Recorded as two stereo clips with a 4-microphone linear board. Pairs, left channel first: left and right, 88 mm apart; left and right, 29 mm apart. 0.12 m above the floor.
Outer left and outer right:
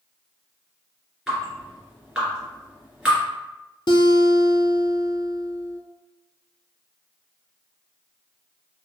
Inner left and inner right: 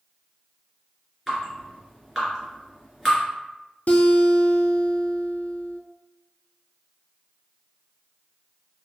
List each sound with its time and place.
1.3 s dripping: 10° right (ahead or behind), 2.0 m
3.9 s a guitar: 60° left (ahead or behind), 0.5 m